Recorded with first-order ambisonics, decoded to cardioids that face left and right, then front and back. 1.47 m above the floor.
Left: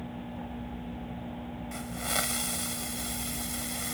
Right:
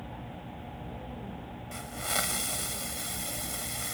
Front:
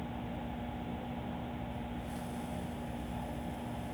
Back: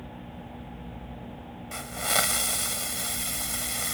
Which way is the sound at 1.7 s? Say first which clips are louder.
Even, back 15 dB; straight behind.